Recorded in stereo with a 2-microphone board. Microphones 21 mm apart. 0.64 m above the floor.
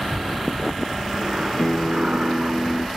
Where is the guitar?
75° left (ahead or behind).